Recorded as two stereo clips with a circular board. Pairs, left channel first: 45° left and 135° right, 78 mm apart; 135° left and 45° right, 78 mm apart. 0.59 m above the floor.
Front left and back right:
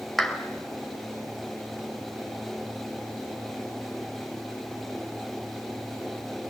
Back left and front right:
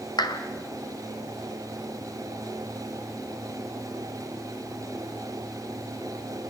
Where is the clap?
130° left, 1.9 m.